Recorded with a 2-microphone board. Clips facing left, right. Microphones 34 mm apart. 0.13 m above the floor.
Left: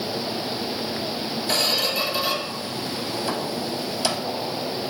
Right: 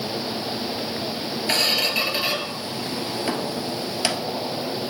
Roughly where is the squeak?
Right.